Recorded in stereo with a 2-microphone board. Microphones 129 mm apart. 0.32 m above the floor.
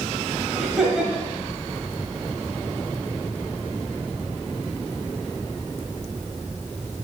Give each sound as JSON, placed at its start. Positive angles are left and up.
{"t": 0.6, "sound": "laughter", "side_deg": -5, "distance_m": 1.5}